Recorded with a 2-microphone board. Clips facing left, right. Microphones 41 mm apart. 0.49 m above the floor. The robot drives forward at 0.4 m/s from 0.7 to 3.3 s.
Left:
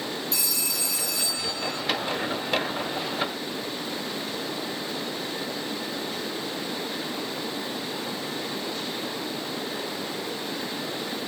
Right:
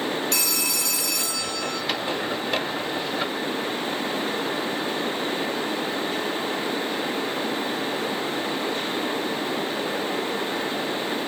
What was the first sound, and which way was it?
A phone ringing, 80° right.